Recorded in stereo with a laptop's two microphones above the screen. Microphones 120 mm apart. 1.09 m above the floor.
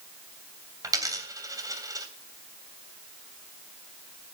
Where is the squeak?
No squeak in this recording.